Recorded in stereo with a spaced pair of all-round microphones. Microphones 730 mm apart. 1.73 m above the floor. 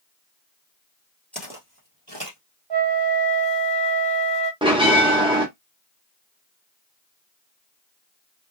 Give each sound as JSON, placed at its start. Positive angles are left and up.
{"t": 1.3, "sound": "footsteps", "side_deg": 0, "distance_m": 1.8}
{"t": 2.7, "sound": "a flute", "side_deg": -35, "distance_m": 0.6}
{"t": 4.6, "sound": "a bell", "side_deg": -5, "distance_m": 0.9}